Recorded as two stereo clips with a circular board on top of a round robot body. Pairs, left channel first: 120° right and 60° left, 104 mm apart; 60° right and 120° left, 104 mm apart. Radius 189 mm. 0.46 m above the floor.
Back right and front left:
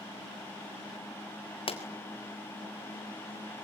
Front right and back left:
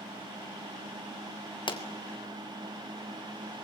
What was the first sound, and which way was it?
A pop, 100° right.